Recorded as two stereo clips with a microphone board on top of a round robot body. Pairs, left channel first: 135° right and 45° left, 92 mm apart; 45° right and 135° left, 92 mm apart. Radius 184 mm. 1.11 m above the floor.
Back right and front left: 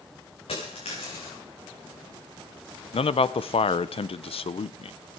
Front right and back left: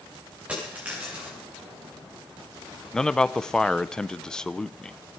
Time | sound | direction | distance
0.5 | a dropped coin | 150° right | 6.5 m
2.9 | a man speaking | 125° right | 0.7 m